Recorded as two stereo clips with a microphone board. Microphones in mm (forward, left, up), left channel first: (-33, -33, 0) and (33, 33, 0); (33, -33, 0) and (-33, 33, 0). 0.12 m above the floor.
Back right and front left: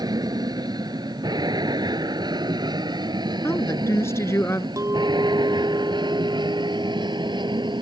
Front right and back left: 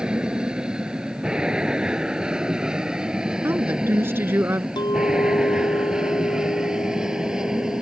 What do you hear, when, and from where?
0.0 s an aircraft: 60° left; by 7.8 s 55° left
3.4 s a woman speaking: 175° right
4.8 s a clink: 10° right